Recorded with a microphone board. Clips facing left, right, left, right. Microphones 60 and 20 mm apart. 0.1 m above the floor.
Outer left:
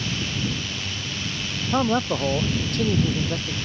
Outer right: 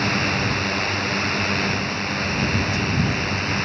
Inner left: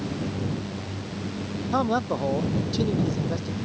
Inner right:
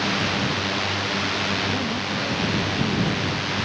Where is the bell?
I don't hear a bell.